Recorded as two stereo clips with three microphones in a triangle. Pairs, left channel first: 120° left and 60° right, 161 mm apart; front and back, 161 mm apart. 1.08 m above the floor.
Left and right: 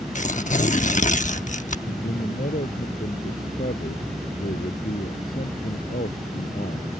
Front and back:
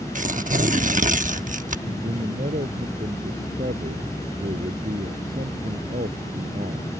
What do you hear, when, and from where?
0.1 s tearing paper: 150° left
1.9 s a man speaking: 145° left